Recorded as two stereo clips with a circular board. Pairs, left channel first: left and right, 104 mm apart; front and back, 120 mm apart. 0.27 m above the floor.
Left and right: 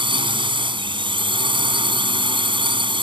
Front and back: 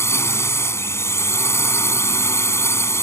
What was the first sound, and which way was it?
A drone, 65° right.